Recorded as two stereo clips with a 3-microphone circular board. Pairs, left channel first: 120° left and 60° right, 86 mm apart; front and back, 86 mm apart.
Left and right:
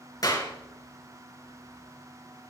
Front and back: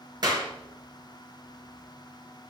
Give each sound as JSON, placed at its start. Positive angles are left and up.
{"t": 0.2, "sound": "a clap", "azimuth_deg": 155, "distance_m": 2.5}